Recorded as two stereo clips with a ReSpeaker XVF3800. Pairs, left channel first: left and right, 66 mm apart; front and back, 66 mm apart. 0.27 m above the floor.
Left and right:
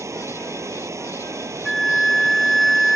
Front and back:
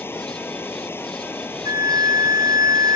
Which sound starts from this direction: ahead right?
Running water, at 0.0 s.